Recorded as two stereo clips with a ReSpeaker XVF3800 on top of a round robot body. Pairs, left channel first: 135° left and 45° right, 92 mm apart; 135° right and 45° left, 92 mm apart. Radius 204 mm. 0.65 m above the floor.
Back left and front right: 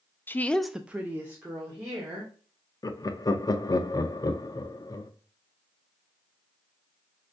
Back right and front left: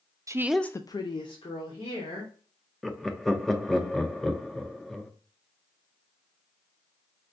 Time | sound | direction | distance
0.3 | a woman speaking | 80° left | 0.5 m
2.8 | laughter | 140° left | 0.6 m